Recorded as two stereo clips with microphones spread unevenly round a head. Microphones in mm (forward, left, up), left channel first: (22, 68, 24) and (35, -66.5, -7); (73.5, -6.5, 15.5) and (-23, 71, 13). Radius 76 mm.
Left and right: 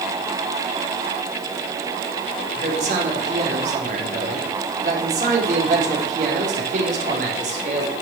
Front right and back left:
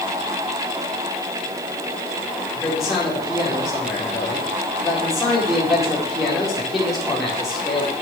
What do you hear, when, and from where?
2.5 s a man speaking: 130° right, 4.5 m